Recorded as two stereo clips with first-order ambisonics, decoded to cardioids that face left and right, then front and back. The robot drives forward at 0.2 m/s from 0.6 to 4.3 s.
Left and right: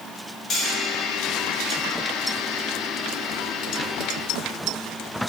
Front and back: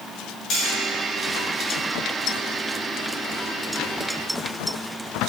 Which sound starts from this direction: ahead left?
Cutlery clinking, at 0.5 s.